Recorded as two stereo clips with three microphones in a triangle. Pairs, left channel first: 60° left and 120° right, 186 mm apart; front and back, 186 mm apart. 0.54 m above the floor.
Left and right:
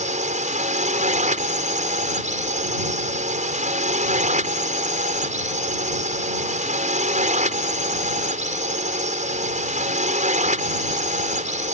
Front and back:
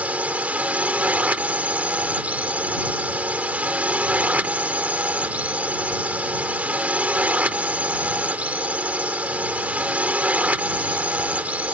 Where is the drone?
100° right.